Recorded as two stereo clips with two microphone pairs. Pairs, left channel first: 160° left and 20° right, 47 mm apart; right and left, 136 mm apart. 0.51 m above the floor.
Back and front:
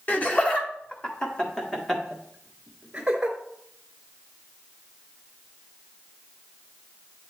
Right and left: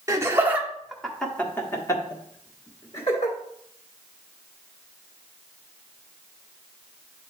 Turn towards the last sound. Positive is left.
turn(degrees=-90)